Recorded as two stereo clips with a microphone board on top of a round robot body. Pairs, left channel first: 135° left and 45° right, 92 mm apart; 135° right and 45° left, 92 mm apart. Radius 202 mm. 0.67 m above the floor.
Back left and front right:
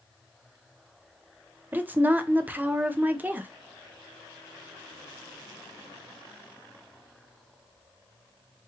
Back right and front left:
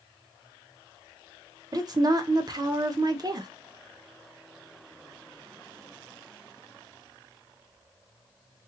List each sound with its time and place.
1.7 s a woman speaking: 20° left, 0.7 m